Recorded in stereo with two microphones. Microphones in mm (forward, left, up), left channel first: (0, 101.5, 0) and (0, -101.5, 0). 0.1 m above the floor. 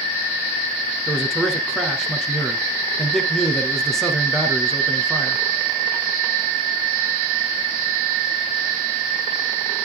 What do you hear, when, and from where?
1.1 s a man speaking: centre (ahead or behind), 1.4 m